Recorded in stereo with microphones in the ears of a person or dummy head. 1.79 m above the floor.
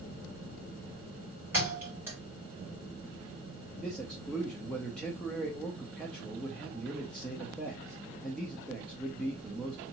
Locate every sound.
1.5 s a thud: 15° right (ahead or behind), 3 m
3.8 s a man speaking: centre (ahead or behind), 0.8 m